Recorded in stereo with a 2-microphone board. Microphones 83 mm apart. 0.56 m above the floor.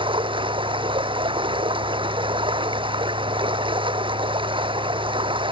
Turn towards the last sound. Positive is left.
turn(degrees=-85)